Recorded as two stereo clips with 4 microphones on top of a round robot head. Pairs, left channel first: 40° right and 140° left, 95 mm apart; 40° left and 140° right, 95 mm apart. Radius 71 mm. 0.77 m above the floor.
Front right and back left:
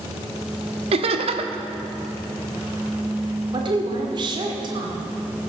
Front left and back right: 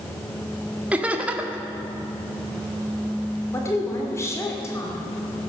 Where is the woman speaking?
100° left, 2 m.